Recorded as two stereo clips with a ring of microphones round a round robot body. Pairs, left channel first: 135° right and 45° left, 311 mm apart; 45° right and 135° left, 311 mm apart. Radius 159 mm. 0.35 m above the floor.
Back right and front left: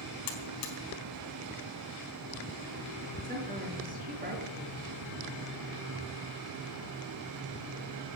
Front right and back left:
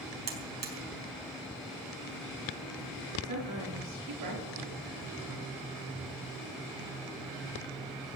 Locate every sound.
0.3 s a buzzer: 165° right, 4 m
3.2 s a woman speaking: 110° left, 7 m